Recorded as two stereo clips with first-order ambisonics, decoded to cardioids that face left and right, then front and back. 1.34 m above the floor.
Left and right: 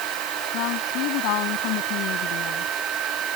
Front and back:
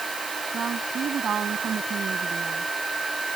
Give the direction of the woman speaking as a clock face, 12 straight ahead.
8 o'clock.